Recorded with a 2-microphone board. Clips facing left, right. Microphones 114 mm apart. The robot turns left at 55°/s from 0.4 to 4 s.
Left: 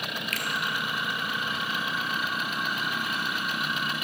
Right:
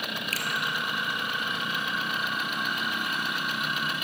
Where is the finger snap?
40° right (ahead or behind), 1.5 m.